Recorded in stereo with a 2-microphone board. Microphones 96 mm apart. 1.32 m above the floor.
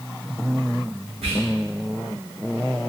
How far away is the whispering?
About 1.4 m.